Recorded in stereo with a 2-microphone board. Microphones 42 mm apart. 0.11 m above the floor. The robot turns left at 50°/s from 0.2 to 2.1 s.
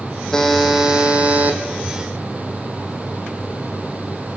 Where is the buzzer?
15° left, 3 m; by 1.6 s 50° right, 3 m.